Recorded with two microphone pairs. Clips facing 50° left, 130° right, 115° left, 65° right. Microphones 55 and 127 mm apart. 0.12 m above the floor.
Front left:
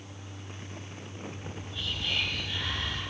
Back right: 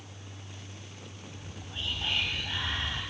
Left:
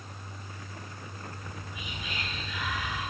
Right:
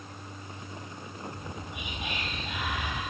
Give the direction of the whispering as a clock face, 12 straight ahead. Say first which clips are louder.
Front left 2 dB, right 3 dB; 3 o'clock.